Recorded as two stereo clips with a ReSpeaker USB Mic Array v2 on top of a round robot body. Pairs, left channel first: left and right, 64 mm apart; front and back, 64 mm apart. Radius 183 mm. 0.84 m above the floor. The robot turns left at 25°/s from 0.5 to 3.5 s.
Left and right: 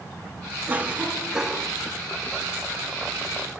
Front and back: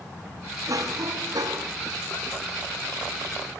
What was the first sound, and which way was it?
A cough, 150° right.